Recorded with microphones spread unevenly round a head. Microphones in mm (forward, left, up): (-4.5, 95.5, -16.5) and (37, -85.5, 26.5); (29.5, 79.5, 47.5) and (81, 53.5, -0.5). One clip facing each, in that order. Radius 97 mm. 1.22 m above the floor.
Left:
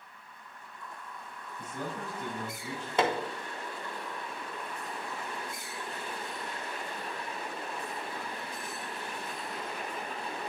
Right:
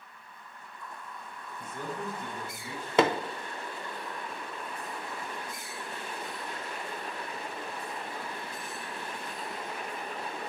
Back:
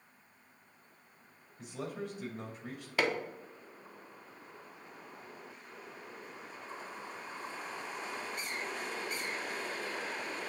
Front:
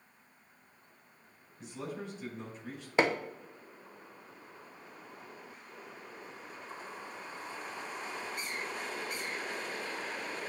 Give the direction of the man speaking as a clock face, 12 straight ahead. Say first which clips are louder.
Right 1 dB, back 1 dB; 8 o'clock.